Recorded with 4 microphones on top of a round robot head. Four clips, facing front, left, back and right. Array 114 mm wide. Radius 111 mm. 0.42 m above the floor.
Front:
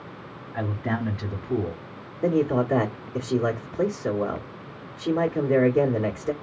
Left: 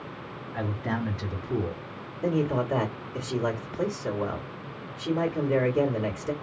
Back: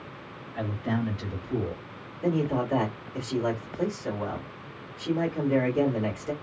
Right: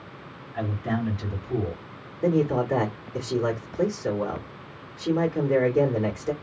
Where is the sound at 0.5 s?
20° left, 1.6 m.